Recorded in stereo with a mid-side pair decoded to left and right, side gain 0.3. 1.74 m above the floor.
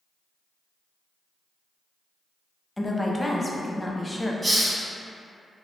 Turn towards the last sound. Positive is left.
turn(degrees=-30)